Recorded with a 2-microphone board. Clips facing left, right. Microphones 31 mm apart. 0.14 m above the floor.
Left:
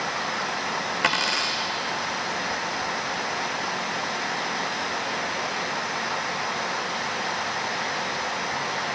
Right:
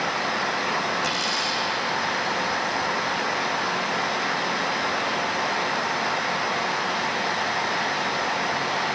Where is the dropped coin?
50° left (ahead or behind), 1.3 m.